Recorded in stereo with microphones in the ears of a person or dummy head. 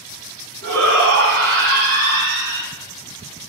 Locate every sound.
0.6 s a shout: 65° right (ahead or behind), 2.5 m; by 2.7 s 80° right, 1.6 m